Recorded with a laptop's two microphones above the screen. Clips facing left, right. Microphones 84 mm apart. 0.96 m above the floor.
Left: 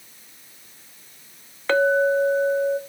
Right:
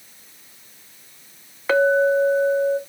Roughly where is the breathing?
I don't hear breathing.